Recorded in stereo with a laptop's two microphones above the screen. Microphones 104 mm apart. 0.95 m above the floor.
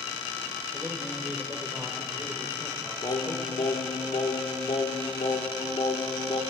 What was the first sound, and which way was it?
A man speaking, 15° right (ahead or behind).